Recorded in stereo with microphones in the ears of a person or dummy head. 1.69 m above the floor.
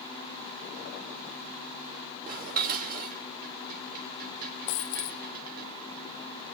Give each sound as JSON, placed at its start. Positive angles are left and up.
{"t": 2.3, "sound": "dishes clattering", "side_deg": -50, "distance_m": 2.5}
{"t": 4.7, "sound": "a dropped coin", "side_deg": 45, "distance_m": 1.4}